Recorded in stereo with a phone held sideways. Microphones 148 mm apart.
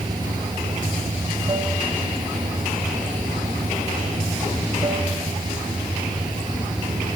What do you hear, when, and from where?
0.0 s running water: 30° right (ahead or behind), 2.5 m